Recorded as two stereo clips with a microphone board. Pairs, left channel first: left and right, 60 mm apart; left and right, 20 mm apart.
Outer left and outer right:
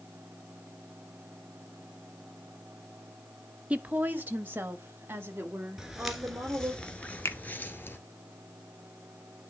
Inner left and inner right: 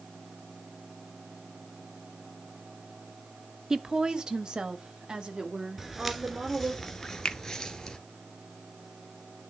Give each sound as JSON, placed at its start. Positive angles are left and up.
{"t": 3.7, "sound": "a woman speaking", "side_deg": -20, "distance_m": 0.8}
{"t": 5.8, "sound": "footsteps", "side_deg": -10, "distance_m": 1.3}
{"t": 7.2, "sound": "a finger snap", "side_deg": 50, "distance_m": 0.8}